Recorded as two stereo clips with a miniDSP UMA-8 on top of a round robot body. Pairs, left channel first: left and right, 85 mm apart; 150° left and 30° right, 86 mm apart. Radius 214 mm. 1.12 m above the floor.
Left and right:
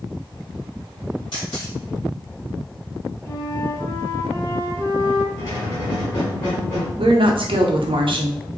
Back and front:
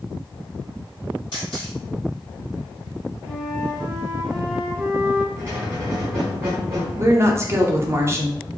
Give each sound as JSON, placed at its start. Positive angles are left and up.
{"t": 1.3, "sound": "a camera shutter", "azimuth_deg": 115, "distance_m": 1.6}
{"t": 3.2, "sound": "a flute", "azimuth_deg": 50, "distance_m": 1.4}
{"t": 5.4, "sound": "a squeak", "azimuth_deg": 35, "distance_m": 1.3}
{"t": 7.0, "sound": "a woman speaking", "azimuth_deg": -90, "distance_m": 1.0}